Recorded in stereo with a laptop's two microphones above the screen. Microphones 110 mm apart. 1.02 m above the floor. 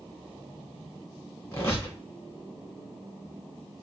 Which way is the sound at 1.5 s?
25° left (ahead or behind).